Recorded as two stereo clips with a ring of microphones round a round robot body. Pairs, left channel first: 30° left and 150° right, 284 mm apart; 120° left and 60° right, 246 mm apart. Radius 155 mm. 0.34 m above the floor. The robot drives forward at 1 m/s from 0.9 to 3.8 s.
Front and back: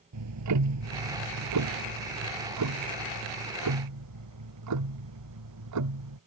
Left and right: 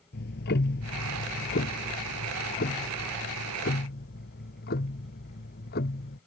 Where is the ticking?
Straight behind.